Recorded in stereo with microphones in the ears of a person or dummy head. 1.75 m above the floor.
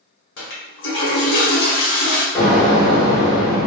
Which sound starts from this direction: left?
A toilet flushing, at 0.4 s.